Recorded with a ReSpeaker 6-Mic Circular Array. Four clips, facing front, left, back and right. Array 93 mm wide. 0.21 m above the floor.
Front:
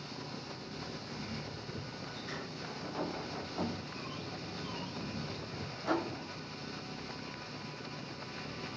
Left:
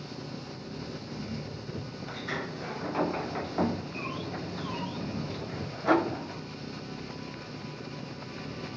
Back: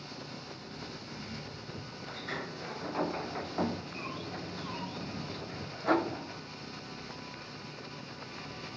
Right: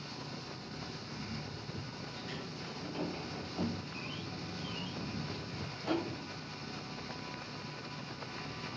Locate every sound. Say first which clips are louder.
0.0 s an engine running: left 5 dB, even; 85° left
2.1 s a sliding door: left 8 dB, back 7 dB; 110° left